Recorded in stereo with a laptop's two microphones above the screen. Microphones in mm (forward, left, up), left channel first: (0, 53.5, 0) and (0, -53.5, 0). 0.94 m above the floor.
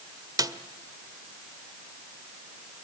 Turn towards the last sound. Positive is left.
turn(degrees=-35)  # may be behind; listen again after turning